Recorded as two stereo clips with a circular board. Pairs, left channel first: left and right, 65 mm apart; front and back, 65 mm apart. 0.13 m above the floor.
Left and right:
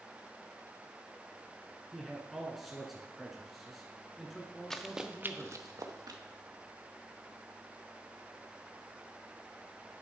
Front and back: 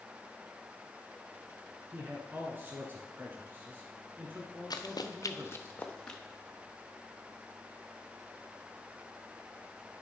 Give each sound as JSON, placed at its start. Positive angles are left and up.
{"t": 1.9, "sound": "a man speaking", "azimuth_deg": 180, "distance_m": 1.2}
{"t": 4.7, "sound": "running footsteps", "azimuth_deg": 10, "distance_m": 1.1}